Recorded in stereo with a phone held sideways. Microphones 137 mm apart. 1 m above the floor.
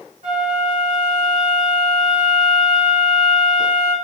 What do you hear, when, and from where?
0.2 s a flute: 65° right (ahead or behind), 1.5 m